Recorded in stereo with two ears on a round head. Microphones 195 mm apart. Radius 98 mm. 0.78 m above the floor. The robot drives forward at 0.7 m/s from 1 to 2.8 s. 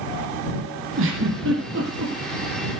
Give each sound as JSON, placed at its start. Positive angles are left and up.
{"t": 1.0, "sound": "a giggle", "side_deg": -70, "distance_m": 7.5}